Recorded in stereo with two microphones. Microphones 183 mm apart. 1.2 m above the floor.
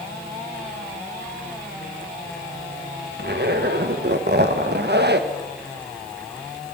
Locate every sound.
3.2 s a zipper: 65° right (ahead or behind), 1.3 m